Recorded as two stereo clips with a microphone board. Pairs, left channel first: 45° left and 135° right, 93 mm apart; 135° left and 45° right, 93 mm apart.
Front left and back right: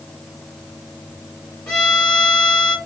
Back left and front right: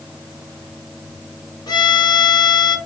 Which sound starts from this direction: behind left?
A violin, at 1.7 s.